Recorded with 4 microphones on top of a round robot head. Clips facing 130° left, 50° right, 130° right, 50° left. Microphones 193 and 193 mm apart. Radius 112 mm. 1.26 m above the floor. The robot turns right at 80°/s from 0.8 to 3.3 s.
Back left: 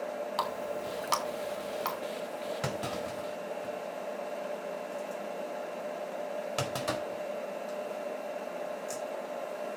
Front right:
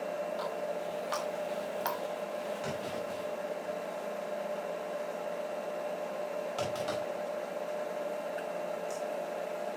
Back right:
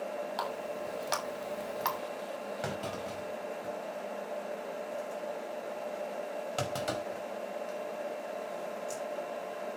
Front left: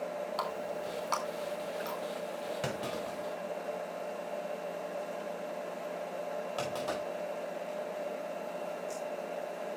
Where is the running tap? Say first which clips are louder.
Even, even; 145° left, 2 m; by 2.0 s 115° right, 2 m.